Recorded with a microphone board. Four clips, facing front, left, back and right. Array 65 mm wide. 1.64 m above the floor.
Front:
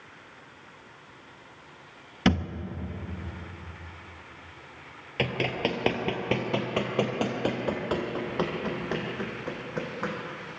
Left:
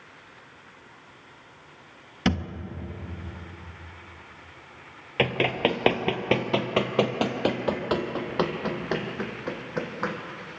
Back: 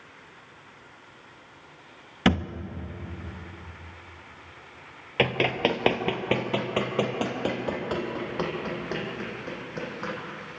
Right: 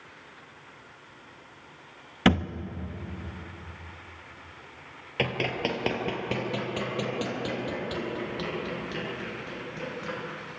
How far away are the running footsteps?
About 1.9 m.